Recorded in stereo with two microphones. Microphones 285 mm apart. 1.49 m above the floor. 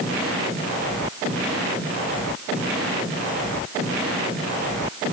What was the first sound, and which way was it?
Only background noise.